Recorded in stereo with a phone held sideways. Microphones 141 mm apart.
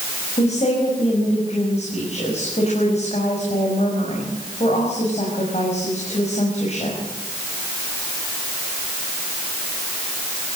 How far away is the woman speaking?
About 6.5 m.